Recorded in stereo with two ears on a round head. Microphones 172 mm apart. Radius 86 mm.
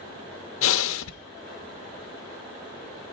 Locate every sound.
0.6 s breathing: 75° left (ahead or behind), 0.7 m